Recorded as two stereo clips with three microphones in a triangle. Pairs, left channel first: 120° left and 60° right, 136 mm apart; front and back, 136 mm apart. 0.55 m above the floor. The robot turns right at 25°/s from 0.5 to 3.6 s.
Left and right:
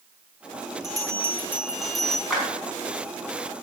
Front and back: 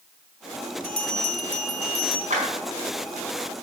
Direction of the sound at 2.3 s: 150° right.